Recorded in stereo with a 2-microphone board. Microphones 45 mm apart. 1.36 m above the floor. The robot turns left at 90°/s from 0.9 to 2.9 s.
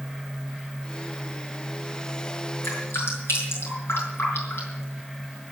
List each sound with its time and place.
2.6 s dripping: 80° left, 6.5 m; by 4.8 s 65° left (ahead or behind), 6.5 m